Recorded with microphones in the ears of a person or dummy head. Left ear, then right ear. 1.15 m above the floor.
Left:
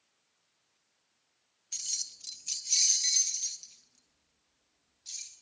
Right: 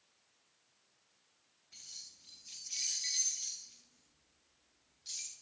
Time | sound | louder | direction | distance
1.7 | keys jangling | left 13 dB | 85° left | 0.6 m